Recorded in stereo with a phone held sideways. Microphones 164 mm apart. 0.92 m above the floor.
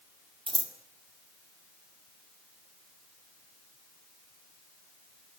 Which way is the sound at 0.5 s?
30° right (ahead or behind).